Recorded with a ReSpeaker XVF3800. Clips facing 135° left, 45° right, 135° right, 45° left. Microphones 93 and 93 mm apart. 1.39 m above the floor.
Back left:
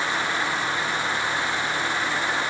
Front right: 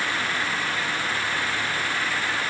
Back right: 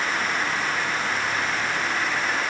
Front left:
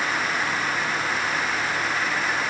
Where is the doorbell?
No doorbell in this recording.